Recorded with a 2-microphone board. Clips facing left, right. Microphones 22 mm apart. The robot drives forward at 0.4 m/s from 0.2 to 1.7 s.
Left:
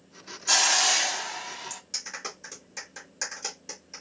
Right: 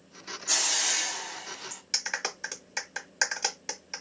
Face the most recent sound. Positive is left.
turn(degrees=-40)  # may be behind; listen again after turning